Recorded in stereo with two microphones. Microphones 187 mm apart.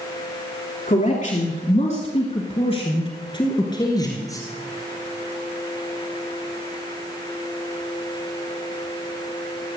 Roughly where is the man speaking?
Left.